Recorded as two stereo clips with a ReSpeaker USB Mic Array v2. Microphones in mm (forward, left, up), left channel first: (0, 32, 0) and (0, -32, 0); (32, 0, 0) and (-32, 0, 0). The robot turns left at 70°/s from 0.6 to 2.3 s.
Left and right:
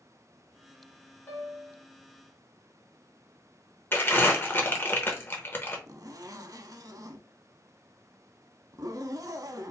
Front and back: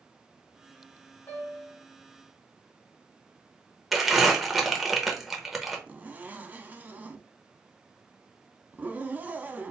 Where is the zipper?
115° right, 0.5 m.